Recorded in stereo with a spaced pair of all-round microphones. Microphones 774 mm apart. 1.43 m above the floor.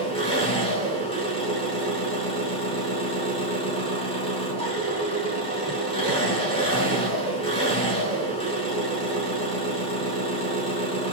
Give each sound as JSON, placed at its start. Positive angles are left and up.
{"t": 0.0, "sound": "an engine running", "side_deg": 5, "distance_m": 6.0}